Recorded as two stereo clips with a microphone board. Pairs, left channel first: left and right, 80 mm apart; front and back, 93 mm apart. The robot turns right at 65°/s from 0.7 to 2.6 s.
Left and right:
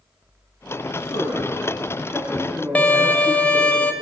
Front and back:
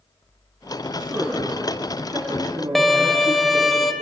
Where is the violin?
85° left, 1.0 m.